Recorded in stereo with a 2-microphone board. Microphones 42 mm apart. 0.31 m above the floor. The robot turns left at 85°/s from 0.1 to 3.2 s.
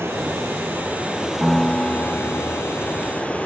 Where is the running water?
70° right, 5 m; by 3.5 s 30° left, 5 m.